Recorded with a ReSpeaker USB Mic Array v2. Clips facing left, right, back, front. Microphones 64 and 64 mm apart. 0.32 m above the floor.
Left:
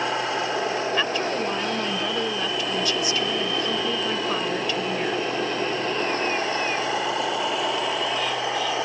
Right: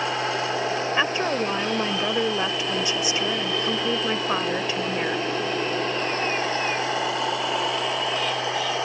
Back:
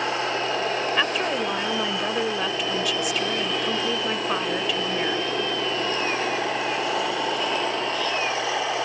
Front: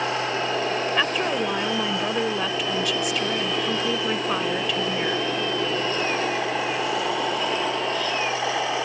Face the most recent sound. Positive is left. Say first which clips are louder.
# right 1 dB, front 1 dB
turn(degrees=-90)